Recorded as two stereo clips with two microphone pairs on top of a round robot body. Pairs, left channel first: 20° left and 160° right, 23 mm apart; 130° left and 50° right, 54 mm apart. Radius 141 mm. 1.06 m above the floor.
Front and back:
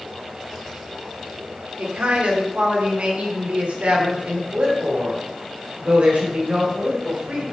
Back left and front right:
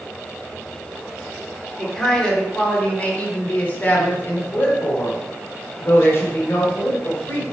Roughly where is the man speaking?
Behind right.